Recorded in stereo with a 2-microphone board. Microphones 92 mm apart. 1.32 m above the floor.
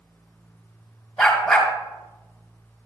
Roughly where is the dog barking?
Centre.